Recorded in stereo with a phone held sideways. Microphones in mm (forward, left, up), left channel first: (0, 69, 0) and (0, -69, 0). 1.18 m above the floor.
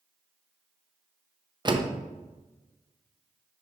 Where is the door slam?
35° right (ahead or behind), 0.7 m.